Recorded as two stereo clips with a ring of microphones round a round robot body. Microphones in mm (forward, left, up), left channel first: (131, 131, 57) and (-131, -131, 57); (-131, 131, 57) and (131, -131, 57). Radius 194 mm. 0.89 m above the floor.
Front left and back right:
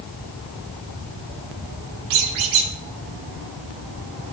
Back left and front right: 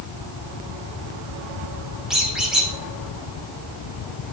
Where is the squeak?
135° right, 2 m.